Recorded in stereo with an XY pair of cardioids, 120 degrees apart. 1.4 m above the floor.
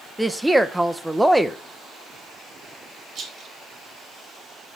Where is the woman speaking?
10° right, 0.8 m.